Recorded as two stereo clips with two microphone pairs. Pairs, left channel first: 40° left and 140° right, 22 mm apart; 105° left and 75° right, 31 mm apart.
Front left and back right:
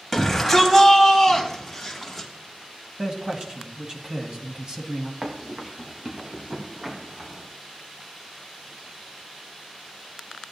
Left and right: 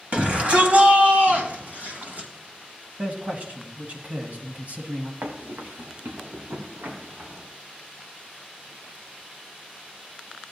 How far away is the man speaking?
About 1.8 m.